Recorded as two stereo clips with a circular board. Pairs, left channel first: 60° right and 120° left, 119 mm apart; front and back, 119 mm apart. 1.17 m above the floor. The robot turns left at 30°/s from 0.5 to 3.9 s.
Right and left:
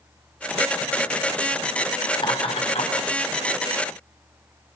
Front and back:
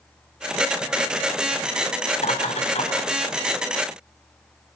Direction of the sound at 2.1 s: 10° right.